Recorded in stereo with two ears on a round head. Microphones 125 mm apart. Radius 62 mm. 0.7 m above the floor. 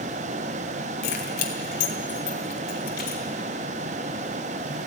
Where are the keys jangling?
75° left (ahead or behind), 2.5 m; by 3.2 s 70° left (ahead or behind), 4 m.